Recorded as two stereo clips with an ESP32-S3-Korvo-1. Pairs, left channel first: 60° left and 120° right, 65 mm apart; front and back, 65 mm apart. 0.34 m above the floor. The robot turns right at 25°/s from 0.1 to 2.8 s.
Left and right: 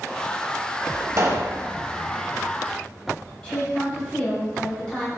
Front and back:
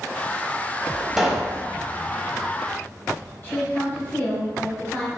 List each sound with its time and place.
1.2 s a pop: 90° right, 0.6 m; by 1.6 s 80° right, 0.6 m
3.4 s a woman speaking: straight ahead, 1.4 m